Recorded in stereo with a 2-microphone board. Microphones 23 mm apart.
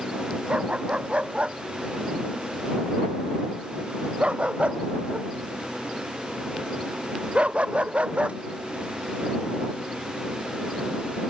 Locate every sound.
0.5 s a dog barking: 55° right (ahead or behind)